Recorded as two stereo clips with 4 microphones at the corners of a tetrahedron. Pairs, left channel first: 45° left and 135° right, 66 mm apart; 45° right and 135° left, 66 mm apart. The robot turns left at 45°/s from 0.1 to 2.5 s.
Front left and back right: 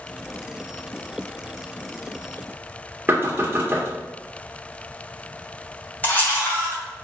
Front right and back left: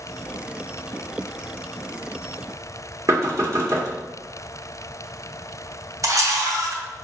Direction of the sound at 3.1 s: 170° left.